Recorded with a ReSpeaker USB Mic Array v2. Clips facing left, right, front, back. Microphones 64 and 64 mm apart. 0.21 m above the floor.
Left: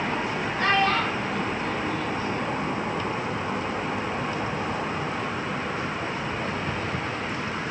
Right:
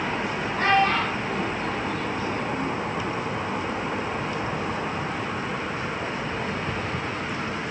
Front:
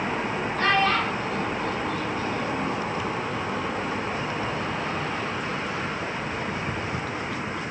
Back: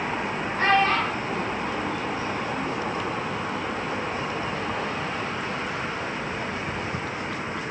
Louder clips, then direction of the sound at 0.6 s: Right 2 dB, back 2 dB; 125° right.